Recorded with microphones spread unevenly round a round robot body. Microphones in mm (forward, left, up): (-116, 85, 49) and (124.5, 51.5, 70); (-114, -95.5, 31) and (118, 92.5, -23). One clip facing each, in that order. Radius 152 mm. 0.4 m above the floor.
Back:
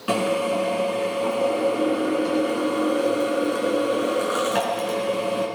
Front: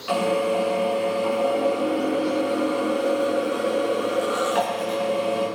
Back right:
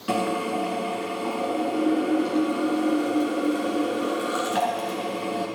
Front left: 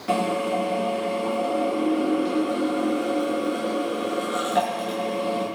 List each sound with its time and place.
0.1 s a drill: 135° left, 7 m